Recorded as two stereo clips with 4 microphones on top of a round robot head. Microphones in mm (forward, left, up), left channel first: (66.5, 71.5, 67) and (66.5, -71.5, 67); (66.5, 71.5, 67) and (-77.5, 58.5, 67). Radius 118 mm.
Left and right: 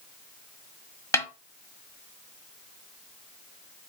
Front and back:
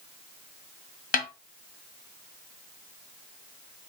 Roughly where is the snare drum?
Ahead.